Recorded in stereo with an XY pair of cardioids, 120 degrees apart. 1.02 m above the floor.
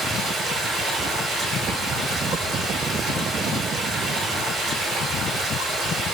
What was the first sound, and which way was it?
Running water, 70° right.